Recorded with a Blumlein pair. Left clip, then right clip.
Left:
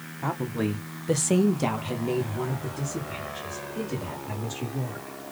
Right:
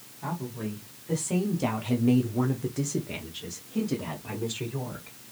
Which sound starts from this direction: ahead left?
A woman speaking, at 0.2 s.